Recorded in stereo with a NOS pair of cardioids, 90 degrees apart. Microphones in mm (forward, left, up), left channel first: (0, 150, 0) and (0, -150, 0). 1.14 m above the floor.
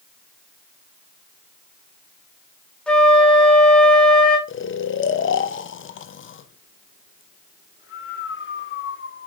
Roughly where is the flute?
Ahead.